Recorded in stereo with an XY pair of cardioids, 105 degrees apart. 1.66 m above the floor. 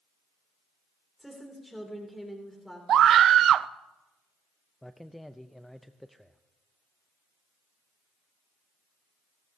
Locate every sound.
1.2 s a woman speaking: straight ahead, 3 m
2.9 s a scream: 60° right, 0.6 m
4.8 s a man speaking: 5° left, 0.6 m